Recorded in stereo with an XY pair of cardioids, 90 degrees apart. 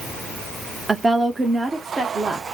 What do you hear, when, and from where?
0.9 s a woman speaking: 20° right, 0.6 m; by 2.5 s 45° right, 1.4 m